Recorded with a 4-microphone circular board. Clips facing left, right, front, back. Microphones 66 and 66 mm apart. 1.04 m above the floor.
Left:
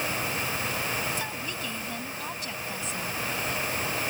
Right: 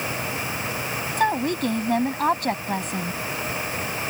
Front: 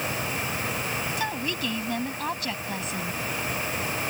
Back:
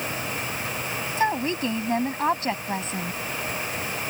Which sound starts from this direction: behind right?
A woman speaking, at 1.2 s.